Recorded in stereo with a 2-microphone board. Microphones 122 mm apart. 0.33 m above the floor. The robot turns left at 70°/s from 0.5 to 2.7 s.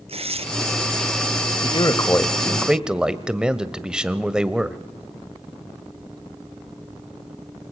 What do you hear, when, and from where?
0.1 s tearing paper: 55° right (ahead or behind), 1.3 m
1.6 s a man speaking: 65° left, 1.1 m; by 4.8 s 10° right, 1.1 m